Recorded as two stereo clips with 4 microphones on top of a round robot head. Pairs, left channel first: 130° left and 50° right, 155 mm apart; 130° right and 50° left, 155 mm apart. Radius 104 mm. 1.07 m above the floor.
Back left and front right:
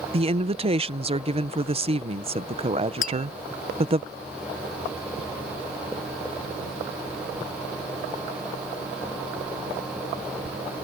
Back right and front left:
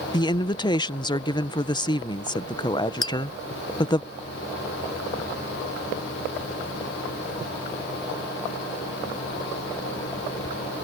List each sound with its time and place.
0.1 s a woman speaking: 80° right
3.0 s tapping: 165° left